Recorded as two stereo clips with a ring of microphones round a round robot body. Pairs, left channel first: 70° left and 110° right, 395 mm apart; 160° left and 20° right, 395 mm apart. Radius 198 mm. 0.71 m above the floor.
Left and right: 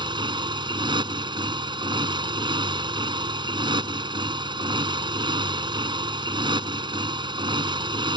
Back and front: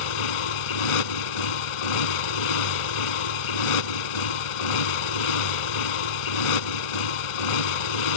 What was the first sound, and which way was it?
A motorcycle, 170° left.